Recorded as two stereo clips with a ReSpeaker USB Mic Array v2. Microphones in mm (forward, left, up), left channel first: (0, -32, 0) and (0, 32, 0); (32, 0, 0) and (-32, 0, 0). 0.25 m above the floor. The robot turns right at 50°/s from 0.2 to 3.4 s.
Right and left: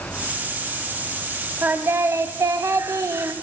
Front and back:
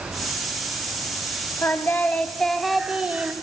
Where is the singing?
35° left, 0.7 m; by 3.3 s 125° left, 0.7 m.